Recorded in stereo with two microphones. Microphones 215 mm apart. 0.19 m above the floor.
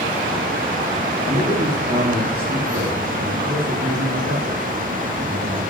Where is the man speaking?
45° right (ahead or behind), 4 m.